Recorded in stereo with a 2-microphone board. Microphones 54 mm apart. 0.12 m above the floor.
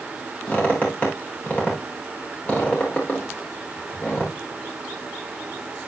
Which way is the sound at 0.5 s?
30° left (ahead or behind).